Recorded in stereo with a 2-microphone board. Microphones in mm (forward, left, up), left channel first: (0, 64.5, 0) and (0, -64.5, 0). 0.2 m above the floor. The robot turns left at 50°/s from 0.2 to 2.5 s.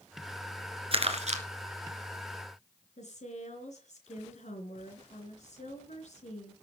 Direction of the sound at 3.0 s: 60° left (ahead or behind).